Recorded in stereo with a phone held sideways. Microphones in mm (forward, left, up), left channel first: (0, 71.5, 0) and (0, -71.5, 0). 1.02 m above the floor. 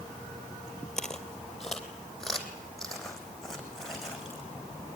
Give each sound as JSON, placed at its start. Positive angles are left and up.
{"t": 1.0, "sound": "footsteps", "side_deg": 5, "distance_m": 1.7}